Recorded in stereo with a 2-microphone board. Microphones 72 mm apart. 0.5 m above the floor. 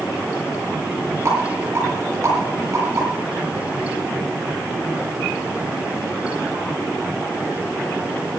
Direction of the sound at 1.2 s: 40° right (ahead or behind).